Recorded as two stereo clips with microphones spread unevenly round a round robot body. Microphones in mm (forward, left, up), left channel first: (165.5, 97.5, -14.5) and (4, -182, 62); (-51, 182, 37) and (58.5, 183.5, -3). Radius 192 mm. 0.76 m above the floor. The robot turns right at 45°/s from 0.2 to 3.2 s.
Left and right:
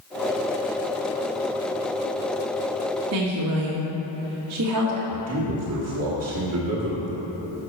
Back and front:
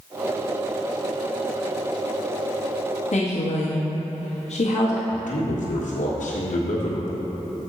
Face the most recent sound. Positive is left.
turn(degrees=-175)